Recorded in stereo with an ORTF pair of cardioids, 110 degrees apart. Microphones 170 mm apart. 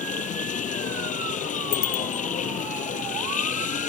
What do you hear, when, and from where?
0.0 s a machine running: 50° left
1.7 s a bicycle bell: 60° left